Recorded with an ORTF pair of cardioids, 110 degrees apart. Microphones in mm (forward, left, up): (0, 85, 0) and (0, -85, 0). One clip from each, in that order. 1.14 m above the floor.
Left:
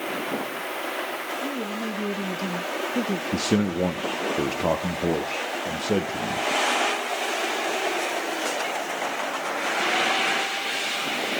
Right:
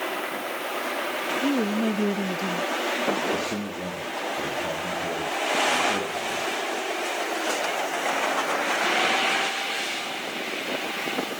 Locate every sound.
1.4 s a woman speaking: 50° right, 2 m; by 3.2 s 80° left, 1.4 m
3.3 s a man speaking: 60° left, 1.8 m